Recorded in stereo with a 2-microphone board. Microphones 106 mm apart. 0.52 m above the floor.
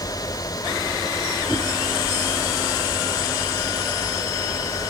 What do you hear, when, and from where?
1.5 s a whoosh: centre (ahead or behind), 1.9 m